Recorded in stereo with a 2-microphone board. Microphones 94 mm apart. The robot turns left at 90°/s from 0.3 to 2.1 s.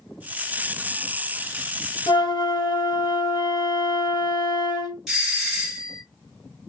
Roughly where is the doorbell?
Centre.